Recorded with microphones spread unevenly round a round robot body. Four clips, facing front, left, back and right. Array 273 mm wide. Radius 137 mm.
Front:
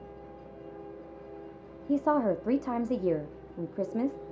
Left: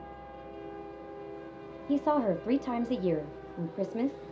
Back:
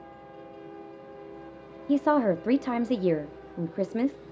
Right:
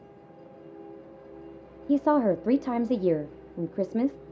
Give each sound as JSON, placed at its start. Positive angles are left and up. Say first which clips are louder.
{"t": 1.9, "sound": "a woman speaking", "louder": "right 5 dB, back 3 dB", "azimuth_deg": -120, "distance_m": 0.8}